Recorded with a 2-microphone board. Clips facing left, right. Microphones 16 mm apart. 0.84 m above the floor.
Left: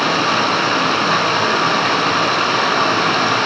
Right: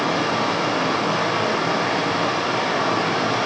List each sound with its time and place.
0.0 s running water: 75° left (ahead or behind), 5.5 m